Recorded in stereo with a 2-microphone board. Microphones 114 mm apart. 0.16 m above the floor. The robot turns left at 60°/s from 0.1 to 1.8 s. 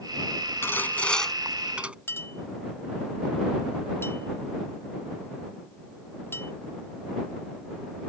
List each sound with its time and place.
0.6 s sawing: 20° left (ahead or behind); by 1.9 s 10° right (ahead or behind)
2.1 s a clink: 20° left (ahead or behind)